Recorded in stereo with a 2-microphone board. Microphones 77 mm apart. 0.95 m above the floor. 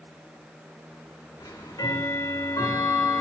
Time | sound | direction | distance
1.4 | ticking | 60° left (ahead or behind) | 2.5 m